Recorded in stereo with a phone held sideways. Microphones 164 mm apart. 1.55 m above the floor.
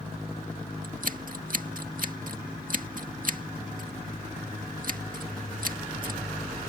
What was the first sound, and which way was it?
Scissors, 60° right (ahead or behind).